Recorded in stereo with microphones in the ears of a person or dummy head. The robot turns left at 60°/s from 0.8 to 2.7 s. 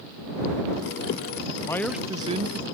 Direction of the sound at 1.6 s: 15° left.